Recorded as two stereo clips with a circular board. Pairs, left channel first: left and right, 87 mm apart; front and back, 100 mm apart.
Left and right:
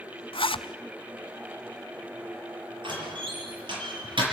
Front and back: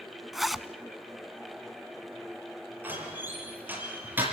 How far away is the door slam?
About 6 m.